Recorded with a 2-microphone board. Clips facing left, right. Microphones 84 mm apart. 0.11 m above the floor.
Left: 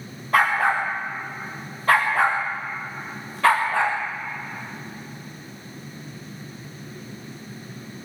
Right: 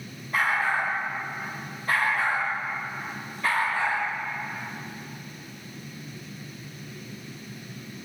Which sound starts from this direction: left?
A dog barking, at 0.3 s.